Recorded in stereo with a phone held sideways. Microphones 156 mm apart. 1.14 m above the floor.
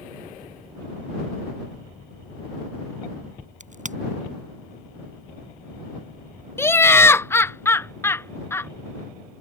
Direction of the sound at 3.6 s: 50° right (ahead or behind).